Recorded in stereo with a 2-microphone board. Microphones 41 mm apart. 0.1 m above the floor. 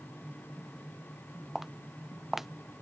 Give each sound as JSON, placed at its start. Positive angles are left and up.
{"t": 1.6, "sound": "footsteps", "side_deg": -5}